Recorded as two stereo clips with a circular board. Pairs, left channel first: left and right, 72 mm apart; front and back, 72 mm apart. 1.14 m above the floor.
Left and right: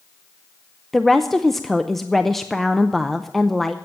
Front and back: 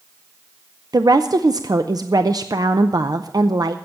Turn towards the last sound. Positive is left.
turn(degrees=175)